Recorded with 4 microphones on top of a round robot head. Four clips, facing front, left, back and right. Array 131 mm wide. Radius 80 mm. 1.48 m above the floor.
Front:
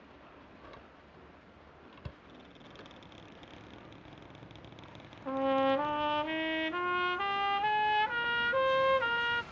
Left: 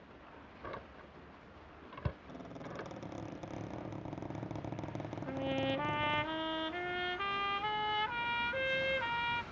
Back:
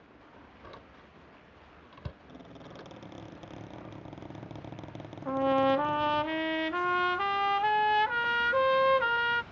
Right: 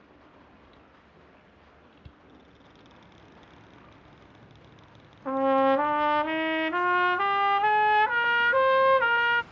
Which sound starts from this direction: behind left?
A squeak, at 2.3 s.